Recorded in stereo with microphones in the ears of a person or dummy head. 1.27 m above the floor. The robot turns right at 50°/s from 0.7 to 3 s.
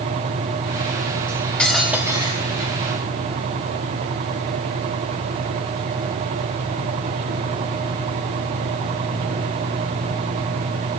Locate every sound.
1.3 s cutlery clinking: 155° left, 1.5 m; by 2.7 s 135° right, 1.5 m